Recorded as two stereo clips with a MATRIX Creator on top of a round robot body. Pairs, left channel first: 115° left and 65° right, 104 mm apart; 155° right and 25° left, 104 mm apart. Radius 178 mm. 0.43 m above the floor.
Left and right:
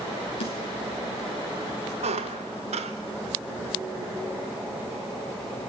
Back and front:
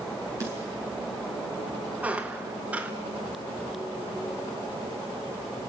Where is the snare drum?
85° left, 8 m.